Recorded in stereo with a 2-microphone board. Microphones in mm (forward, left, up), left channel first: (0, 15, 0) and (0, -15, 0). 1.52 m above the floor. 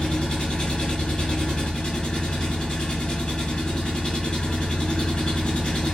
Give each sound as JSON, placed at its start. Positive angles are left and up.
{"t": 0.0, "sound": "an engine running", "side_deg": 35, "distance_m": 1.1}